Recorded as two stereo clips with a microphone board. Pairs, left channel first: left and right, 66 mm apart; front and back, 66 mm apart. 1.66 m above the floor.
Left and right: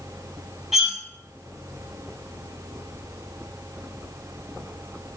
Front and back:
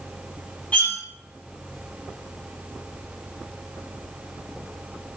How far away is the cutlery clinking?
About 0.9 m.